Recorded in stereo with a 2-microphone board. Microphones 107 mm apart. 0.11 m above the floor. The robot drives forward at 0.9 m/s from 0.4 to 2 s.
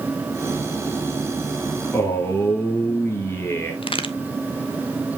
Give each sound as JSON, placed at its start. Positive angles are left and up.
{"t": 1.9, "sound": "a man speaking", "side_deg": 20, "distance_m": 1.8}
{"t": 3.8, "sound": "a crack", "side_deg": 55, "distance_m": 0.6}